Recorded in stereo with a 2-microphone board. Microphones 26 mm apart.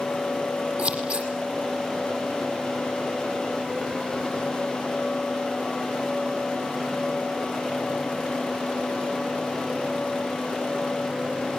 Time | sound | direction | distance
0.8 | scissors | 60° right (ahead or behind) | 8 m